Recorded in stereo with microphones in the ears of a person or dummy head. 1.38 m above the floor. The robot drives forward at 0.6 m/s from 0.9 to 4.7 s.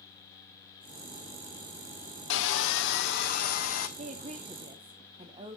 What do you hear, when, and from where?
2.3 s sawing: 80° left, 1.0 m; by 3.9 s 45° left (ahead or behind), 1.3 m
4.0 s a woman speaking: 45° right (ahead or behind), 0.7 m; by 5.6 s 25° right (ahead or behind), 1.0 m